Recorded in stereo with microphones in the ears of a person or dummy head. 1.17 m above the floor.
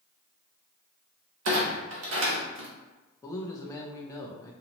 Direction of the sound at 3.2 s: 20° left (ahead or behind).